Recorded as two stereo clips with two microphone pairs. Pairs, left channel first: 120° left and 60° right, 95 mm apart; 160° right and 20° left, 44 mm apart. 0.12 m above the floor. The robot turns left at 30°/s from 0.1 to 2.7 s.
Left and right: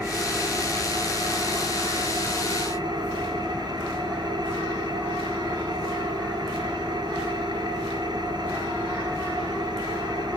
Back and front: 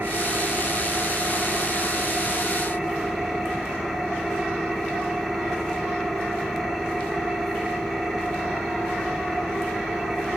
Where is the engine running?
5° left, 1.7 m; by 10.4 s 75° right, 1.7 m.